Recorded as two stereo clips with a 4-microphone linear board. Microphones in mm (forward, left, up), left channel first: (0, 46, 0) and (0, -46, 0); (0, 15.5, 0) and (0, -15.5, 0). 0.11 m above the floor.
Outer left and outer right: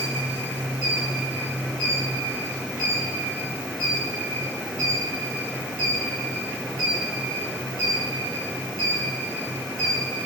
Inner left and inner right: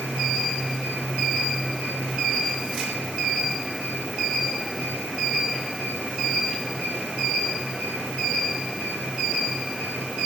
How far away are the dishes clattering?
I don't hear dishes clattering.